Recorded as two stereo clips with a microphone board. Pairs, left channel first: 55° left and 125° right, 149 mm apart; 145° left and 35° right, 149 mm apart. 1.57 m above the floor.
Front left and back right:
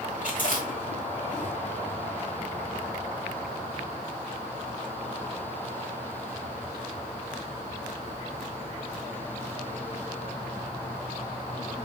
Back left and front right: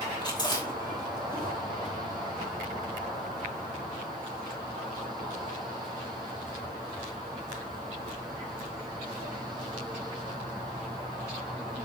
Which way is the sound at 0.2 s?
85° left.